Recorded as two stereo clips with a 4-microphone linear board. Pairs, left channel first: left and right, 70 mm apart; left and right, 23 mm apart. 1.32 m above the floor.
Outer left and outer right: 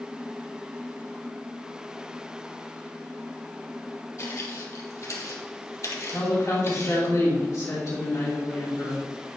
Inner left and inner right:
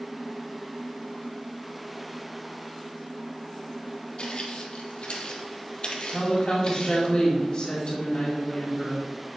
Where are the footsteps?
45° left (ahead or behind), 2.5 m; by 7.1 s 35° left (ahead or behind), 2 m.